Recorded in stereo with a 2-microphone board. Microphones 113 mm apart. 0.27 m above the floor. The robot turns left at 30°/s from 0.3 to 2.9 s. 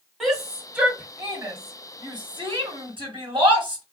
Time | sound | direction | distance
0.2 | a shout | centre (ahead or behind) | 1.8 m